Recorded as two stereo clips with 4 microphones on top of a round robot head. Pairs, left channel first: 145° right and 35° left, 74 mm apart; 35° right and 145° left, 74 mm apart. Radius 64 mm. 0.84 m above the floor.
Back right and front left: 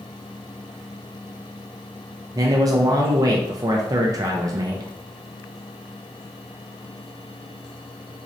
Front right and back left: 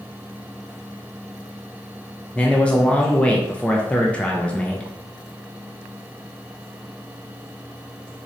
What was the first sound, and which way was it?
A man speaking, 35° left.